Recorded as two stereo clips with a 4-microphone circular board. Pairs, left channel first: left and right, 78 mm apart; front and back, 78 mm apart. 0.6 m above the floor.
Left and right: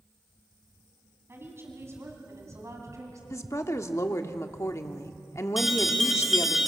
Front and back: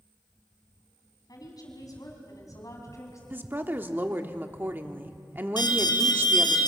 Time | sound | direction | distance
1.3 | a woman speaking | 35° right | 5 m
3.3 | a woman speaking | 125° left | 1.2 m
5.6 | an alarm | straight ahead | 3 m